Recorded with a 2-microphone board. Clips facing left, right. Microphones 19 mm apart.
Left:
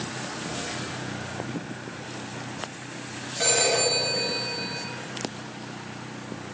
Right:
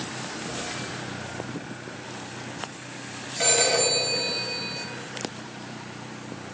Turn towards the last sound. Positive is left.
turn(degrees=-15)  # may be behind; listen again after turning